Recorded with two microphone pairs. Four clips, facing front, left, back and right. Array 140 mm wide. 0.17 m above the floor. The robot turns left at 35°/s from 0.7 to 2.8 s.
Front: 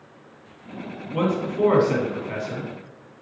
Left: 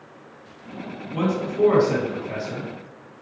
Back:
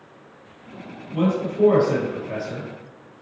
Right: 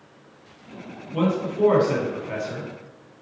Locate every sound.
1.1 s a man speaking: 5° left, 1.4 m; by 2.7 s 50° right, 1.4 m